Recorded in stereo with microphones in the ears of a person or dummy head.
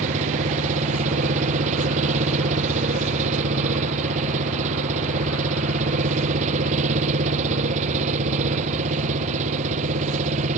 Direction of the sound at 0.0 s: 40° right (ahead or behind).